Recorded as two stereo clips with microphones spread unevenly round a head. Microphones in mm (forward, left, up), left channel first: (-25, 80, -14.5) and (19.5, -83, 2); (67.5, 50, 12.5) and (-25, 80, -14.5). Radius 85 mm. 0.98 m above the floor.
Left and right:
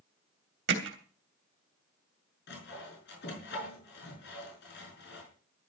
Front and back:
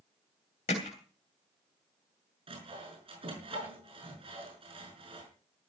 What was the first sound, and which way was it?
Hammering, 55° right.